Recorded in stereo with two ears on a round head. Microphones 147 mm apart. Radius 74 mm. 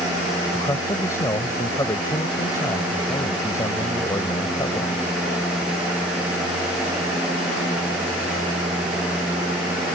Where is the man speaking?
20° left (ahead or behind).